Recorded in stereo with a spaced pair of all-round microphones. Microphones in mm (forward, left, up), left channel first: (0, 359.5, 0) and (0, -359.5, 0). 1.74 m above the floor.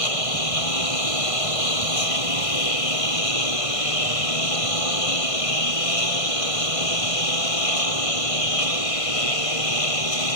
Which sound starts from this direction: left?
A lawn mower, at 0.0 s.